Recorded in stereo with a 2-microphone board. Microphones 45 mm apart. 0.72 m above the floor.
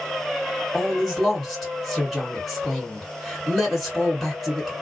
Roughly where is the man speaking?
Centre.